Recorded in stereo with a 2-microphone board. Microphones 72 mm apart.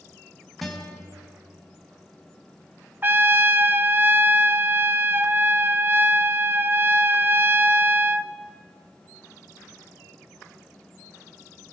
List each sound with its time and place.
0.6 s a guitar: centre (ahead or behind), 4.5 m
3.0 s a trumpet: 30° right (ahead or behind), 1.0 m